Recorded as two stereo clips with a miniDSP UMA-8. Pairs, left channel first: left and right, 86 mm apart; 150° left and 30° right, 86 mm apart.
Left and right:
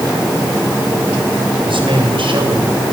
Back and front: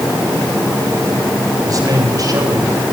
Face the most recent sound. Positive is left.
turn(degrees=-70)